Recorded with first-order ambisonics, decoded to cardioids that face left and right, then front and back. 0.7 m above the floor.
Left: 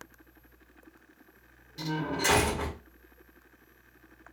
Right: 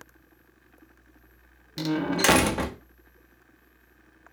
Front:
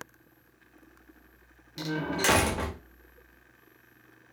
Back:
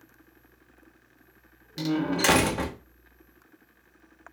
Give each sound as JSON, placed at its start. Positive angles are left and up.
{"t": 1.8, "sound": "a door slam", "azimuth_deg": -100, "distance_m": 0.6}